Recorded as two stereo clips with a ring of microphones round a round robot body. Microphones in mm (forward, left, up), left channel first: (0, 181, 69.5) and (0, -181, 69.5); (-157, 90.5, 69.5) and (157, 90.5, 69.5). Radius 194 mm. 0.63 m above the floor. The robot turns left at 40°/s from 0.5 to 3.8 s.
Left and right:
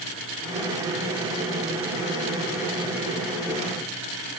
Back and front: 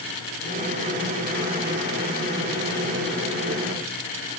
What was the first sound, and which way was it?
Only background noise.